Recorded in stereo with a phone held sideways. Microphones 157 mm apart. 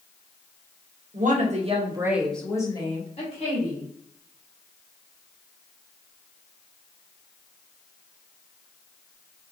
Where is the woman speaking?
60° right (ahead or behind), 0.9 m; by 3.8 s 50° left (ahead or behind), 1.3 m.